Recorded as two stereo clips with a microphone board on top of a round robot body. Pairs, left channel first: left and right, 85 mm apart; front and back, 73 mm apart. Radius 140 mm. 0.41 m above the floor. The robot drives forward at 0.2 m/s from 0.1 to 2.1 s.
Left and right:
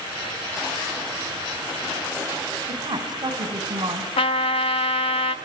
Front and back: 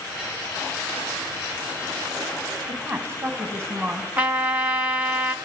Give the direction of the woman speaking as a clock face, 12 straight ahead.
4 o'clock.